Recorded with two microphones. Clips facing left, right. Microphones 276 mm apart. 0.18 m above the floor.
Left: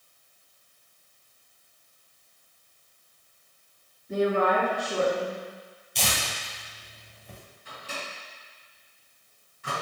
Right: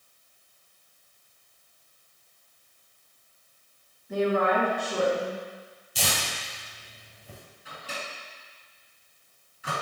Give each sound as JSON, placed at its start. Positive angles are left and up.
{"t": 4.1, "sound": "a woman speaking", "side_deg": 25, "distance_m": 1.9}
{"t": 6.0, "sound": "tearing paper", "side_deg": -5, "distance_m": 1.4}
{"t": 7.7, "sound": "a microwave", "side_deg": -5, "distance_m": 1.9}